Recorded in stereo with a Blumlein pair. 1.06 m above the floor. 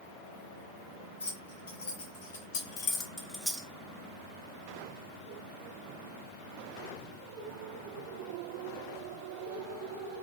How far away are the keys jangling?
About 3 m.